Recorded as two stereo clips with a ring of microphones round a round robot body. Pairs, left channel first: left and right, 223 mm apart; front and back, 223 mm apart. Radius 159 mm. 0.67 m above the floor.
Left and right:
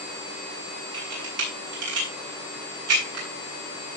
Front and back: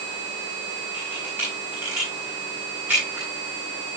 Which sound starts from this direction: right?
A camera shutter, at 0.9 s.